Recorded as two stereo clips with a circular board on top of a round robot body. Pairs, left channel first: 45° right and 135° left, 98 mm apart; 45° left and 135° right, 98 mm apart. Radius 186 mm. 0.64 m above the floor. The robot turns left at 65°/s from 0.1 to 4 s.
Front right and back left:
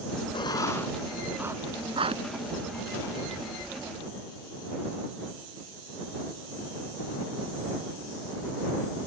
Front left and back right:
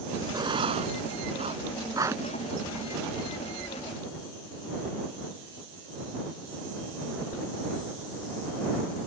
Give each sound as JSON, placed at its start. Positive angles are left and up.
{"t": 0.3, "sound": "writing", "azimuth_deg": -85}